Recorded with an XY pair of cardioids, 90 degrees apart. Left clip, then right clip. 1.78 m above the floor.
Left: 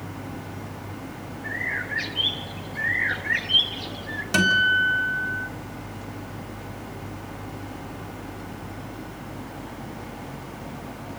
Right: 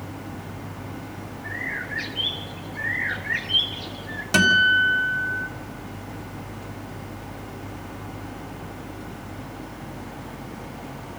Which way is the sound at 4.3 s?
25° right.